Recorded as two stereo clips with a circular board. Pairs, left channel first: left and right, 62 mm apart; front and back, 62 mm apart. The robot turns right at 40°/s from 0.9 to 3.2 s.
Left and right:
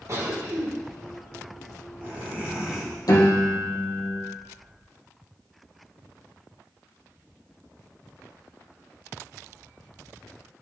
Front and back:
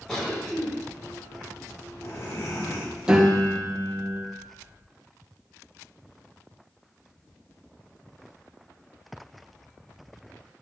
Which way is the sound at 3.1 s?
105° left.